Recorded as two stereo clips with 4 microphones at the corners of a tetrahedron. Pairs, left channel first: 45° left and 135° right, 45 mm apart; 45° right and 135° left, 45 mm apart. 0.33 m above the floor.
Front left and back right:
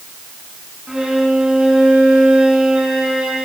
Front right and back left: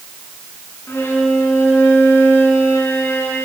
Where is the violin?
60° right, 3.5 m.